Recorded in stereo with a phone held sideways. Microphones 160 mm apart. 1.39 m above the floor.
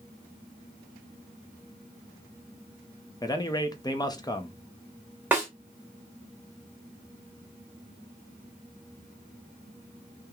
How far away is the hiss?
No hiss in this recording.